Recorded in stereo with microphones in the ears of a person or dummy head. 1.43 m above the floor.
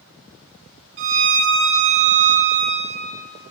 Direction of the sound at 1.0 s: 40° right (ahead or behind).